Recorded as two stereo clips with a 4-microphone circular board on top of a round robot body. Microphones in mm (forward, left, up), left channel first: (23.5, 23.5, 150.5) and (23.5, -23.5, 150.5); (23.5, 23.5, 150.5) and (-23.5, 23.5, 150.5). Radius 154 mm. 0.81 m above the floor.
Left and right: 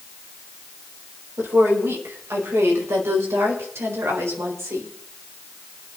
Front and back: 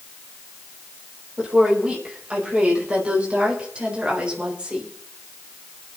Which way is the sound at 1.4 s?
115° right.